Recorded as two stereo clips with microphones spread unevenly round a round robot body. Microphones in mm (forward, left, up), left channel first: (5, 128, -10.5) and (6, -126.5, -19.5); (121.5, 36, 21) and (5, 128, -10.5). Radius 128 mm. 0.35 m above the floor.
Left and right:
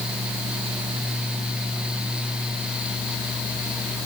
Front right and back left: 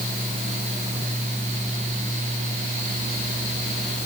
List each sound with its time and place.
Only background noise.